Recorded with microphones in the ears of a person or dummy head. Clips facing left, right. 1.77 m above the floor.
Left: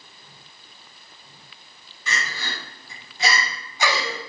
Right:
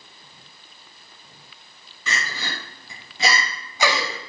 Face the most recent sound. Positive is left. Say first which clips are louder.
# right 1 dB
turn(degrees=-70)  # may be behind; listen again after turning